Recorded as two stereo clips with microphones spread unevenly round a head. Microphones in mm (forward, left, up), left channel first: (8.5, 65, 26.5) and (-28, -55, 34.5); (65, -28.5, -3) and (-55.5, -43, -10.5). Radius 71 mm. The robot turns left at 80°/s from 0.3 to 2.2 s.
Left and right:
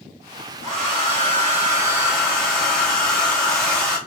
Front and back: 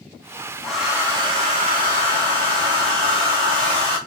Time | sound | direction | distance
0.6 | a hair dryer | 80° right | 1.8 m